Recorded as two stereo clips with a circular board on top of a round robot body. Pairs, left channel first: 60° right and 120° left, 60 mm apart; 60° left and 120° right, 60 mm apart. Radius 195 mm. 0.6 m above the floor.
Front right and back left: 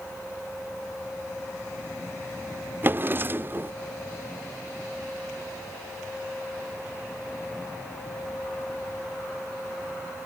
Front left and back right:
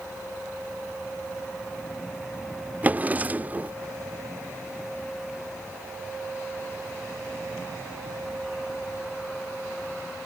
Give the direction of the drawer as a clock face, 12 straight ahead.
6 o'clock.